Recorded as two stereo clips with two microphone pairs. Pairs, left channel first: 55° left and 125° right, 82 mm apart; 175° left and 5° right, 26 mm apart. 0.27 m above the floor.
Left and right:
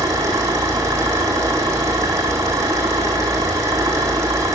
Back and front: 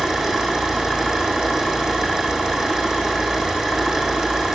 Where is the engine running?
70° right, 4 m.